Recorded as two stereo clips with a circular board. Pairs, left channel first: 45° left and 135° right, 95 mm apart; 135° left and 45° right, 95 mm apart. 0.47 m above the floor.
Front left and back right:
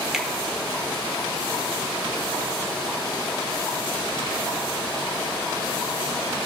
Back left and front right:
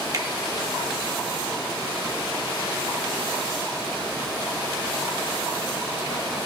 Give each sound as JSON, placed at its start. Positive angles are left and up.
{"t": 0.1, "sound": "a finger snap", "azimuth_deg": -55, "distance_m": 1.0}